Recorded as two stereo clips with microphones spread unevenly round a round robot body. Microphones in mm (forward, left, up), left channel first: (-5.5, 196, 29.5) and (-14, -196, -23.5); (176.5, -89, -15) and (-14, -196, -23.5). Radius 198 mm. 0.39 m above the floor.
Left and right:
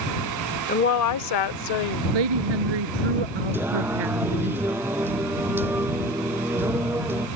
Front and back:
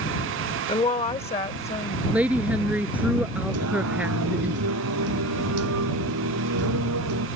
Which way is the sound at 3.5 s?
175° right.